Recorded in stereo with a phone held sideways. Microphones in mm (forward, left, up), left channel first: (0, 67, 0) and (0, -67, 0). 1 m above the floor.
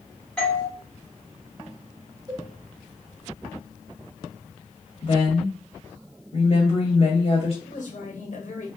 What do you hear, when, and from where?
0.4 s a doorbell: 5° left (ahead or behind), 2.5 m
2.3 s a cowbell: 25° right (ahead or behind), 1.4 m
5.0 s a woman speaking: 50° left (ahead or behind), 1.7 m
7.6 s a woman speaking: 65° left (ahead or behind), 1.8 m